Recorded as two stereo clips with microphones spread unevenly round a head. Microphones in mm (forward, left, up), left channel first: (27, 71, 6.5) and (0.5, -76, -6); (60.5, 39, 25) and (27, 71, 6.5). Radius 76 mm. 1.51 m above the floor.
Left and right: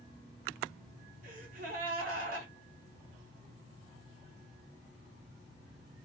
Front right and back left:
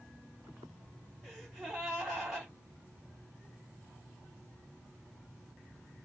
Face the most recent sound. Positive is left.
turn(degrees=-125)